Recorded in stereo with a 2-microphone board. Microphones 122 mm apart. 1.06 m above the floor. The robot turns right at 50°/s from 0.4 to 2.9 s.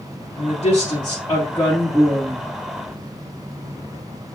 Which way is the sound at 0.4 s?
105° left.